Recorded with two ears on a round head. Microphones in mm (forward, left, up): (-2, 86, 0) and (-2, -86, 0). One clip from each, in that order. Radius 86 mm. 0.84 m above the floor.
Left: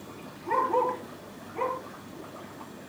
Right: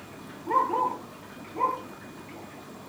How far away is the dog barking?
About 8.5 m.